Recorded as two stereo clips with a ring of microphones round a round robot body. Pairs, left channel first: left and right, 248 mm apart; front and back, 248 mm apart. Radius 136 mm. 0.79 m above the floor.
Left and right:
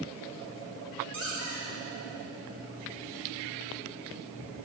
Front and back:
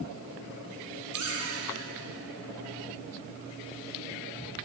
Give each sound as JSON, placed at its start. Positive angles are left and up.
{"t": 1.1, "sound": "a squeak", "azimuth_deg": -135, "distance_m": 4.0}